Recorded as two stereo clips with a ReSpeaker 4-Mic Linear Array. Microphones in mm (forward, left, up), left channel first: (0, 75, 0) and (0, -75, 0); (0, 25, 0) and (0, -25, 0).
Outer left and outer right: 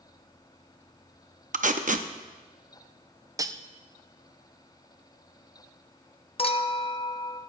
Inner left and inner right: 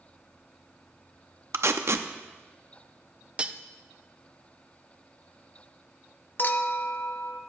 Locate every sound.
1.5 s tape being pulled: 60° right (ahead or behind), 0.7 m
3.4 s cutlery clinking: 25° right (ahead or behind), 0.5 m
6.4 s a clink: 40° left (ahead or behind), 0.7 m